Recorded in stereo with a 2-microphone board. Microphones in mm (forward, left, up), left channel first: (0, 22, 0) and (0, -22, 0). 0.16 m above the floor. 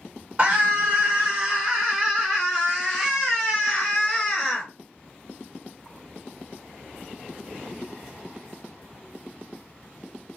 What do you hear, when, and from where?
0.4 s a scream: 25° right (ahead or behind), 1.5 m; by 4.7 s 15° left (ahead or behind), 2.5 m